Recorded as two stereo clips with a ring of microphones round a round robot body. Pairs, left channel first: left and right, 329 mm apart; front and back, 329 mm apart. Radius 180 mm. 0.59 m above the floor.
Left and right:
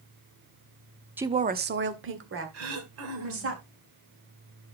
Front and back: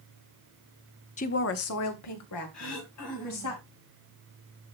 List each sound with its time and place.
1.2 s a woman speaking: 15° right, 0.6 m; by 3.5 s 40° right, 3.5 m
2.5 s throat clearing: 45° right, 2 m